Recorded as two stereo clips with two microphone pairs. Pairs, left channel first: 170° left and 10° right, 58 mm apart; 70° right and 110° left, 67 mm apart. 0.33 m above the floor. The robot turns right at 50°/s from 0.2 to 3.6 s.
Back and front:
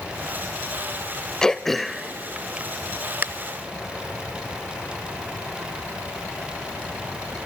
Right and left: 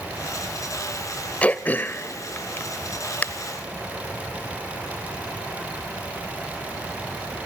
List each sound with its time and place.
1.4 s throat clearing: 120° right, 0.5 m; by 3.2 s 25° right, 0.5 m